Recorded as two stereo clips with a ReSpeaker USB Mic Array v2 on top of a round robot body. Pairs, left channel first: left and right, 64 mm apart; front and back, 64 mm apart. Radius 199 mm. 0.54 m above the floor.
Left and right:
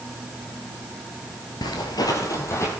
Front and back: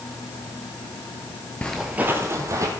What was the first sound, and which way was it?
Footsteps, 70° left.